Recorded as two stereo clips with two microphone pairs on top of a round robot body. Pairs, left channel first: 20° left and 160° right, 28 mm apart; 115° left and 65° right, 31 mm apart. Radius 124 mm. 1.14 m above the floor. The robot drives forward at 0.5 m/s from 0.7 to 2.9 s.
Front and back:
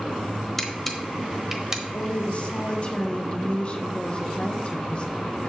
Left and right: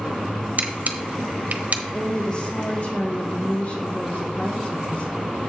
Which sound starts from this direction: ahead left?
A woman speaking, at 1.9 s.